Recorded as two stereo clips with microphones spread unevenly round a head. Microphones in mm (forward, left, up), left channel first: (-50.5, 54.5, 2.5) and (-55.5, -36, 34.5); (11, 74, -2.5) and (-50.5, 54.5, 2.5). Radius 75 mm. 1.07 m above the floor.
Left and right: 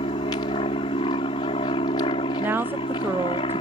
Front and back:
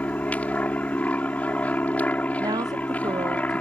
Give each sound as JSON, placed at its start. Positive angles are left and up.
{"t": 0.0, "sound": "an aircraft", "azimuth_deg": 80}
{"t": 2.4, "sound": "a woman speaking", "azimuth_deg": -170}